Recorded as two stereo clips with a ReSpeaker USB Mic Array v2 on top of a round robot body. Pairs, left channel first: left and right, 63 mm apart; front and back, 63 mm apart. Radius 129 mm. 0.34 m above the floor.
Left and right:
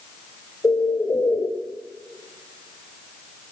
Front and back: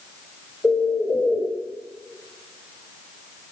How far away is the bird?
About 3 m.